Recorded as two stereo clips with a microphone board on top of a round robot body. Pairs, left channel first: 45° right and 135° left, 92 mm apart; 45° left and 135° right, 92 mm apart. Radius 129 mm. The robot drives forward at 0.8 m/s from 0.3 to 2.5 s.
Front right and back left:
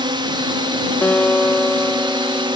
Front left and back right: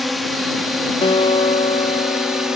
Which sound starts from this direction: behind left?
A drone, at 0.0 s.